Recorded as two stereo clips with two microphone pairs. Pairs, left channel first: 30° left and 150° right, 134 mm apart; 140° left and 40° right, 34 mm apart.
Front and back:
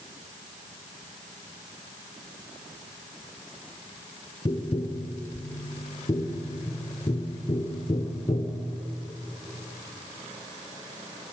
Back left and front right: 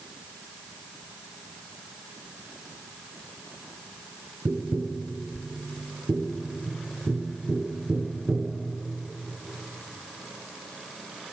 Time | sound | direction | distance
4.5 | tapping | 10° right | 0.7 m